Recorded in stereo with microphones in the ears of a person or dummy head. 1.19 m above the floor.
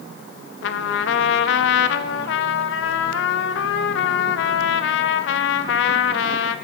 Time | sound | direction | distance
0.6 | a trumpet | 65° left (ahead or behind) | 0.8 m